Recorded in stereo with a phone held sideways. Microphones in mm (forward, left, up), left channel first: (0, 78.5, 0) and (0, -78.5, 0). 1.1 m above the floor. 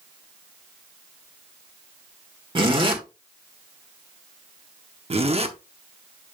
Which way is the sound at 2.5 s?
35° right (ahead or behind).